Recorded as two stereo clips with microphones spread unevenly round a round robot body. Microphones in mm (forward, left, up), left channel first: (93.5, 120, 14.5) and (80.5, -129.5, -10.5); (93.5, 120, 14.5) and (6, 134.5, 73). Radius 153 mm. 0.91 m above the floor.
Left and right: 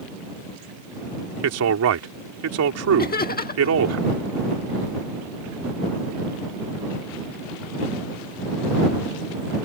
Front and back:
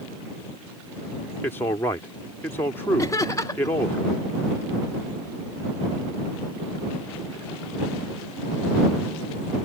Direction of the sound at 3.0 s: 30° left.